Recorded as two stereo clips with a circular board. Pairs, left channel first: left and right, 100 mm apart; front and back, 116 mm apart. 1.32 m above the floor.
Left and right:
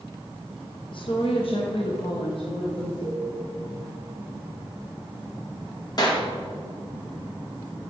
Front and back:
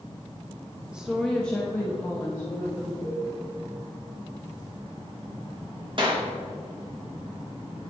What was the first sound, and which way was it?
A woman speaking, 100° left.